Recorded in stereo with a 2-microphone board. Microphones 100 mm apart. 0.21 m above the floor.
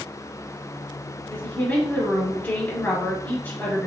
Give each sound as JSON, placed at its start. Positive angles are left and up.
{"t": 1.3, "sound": "a woman speaking", "side_deg": 15, "distance_m": 1.2}